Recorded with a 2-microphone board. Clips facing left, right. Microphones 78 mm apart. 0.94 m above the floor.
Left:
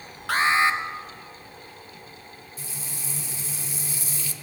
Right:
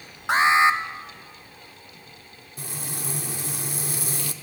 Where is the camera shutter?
I don't hear a camera shutter.